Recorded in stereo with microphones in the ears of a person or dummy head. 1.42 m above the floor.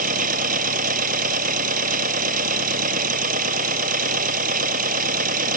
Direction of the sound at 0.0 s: 45° right (ahead or behind).